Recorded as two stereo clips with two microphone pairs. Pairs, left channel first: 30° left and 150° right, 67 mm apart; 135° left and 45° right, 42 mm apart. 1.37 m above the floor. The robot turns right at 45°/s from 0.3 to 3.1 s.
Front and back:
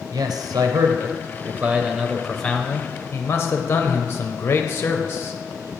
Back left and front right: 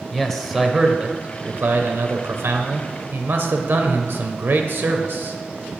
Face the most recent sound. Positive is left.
turn(degrees=-20)